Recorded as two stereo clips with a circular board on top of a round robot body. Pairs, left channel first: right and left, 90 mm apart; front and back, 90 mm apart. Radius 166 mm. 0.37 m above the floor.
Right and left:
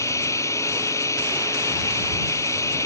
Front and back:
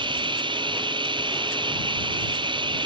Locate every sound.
0.0 s running water: 145° right